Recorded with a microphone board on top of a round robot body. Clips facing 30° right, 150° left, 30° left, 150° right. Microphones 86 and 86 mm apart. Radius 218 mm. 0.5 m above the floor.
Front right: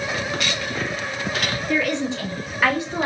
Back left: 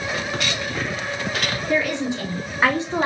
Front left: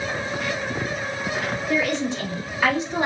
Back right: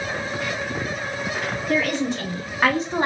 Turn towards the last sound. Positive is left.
turn(degrees=-165)